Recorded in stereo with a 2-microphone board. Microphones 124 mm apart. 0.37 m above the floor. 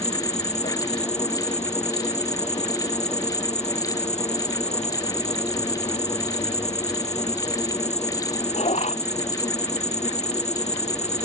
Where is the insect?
70° left (ahead or behind).